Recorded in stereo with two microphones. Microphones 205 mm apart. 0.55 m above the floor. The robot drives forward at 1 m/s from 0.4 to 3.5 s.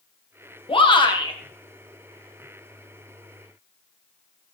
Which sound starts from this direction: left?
A shout, at 0.7 s.